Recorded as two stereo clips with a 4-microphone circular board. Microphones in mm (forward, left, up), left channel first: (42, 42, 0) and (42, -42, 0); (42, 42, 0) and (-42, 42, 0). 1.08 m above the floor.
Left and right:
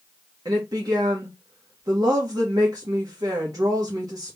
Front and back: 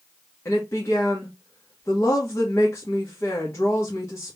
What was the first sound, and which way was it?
A woman speaking, 55° right.